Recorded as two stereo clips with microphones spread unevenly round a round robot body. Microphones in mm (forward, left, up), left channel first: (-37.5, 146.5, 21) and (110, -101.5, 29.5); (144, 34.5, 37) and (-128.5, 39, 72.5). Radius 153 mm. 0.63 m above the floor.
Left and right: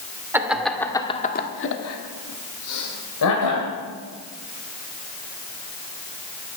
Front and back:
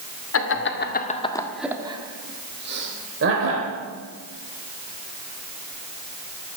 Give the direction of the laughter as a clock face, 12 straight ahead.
11 o'clock.